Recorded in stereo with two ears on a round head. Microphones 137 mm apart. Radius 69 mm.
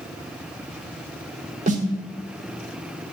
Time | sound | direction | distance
1.7 | a snare drum | 50° right (ahead or behind) | 1.1 m